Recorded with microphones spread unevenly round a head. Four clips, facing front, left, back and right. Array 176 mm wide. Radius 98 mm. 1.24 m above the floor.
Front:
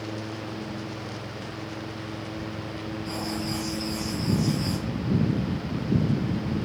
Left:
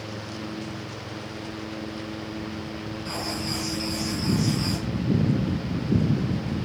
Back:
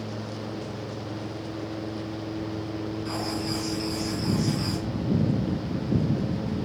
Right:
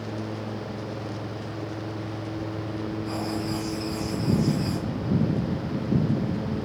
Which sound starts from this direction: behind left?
Writing, at 3.0 s.